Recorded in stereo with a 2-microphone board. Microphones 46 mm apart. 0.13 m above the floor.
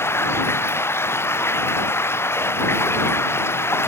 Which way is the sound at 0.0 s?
65° left (ahead or behind).